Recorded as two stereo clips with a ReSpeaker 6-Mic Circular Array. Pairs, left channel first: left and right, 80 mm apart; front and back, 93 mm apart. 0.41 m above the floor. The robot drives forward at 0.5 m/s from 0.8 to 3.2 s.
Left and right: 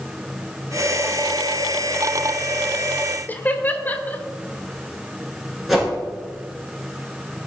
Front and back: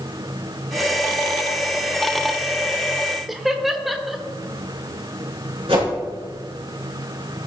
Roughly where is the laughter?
Left.